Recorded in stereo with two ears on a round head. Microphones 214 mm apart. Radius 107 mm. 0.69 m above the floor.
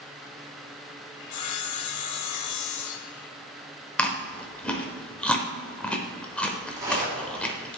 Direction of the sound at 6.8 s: 15° right (ahead or behind).